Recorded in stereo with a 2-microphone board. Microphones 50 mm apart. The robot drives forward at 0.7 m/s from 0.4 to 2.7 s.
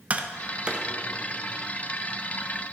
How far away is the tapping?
About 0.5 m.